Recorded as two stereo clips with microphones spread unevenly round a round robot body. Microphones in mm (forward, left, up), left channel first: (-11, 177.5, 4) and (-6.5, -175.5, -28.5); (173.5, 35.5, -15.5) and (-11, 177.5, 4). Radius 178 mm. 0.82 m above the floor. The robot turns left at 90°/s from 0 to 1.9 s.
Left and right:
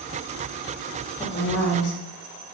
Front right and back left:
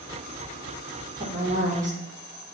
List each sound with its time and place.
1.2 s a woman speaking: 165° left, 1.0 m; by 2.0 s 100° left, 1.0 m